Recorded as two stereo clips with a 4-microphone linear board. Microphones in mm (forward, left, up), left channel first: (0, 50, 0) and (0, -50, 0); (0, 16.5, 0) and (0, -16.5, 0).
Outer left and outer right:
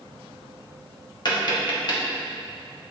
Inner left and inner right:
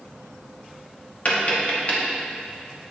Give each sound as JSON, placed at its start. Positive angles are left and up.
{"t": 1.2, "sound": "tapping", "side_deg": 45, "distance_m": 1.2}